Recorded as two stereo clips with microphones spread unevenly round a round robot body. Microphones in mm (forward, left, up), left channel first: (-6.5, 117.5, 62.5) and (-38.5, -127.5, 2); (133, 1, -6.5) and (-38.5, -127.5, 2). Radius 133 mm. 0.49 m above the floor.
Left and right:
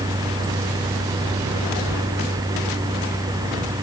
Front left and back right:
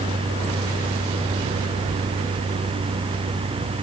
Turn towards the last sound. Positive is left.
No sound to turn to.